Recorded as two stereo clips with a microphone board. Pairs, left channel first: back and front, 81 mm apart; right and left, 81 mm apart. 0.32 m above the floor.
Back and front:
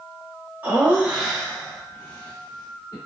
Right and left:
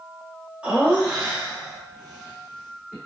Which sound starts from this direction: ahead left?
Laughter, at 0.6 s.